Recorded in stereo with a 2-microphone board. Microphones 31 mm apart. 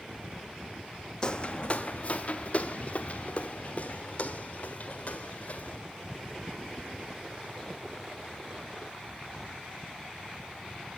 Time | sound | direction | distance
1.2 | footsteps | 30° left (ahead or behind) | 0.6 m